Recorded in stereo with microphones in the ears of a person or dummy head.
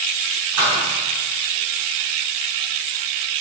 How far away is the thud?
About 3 m.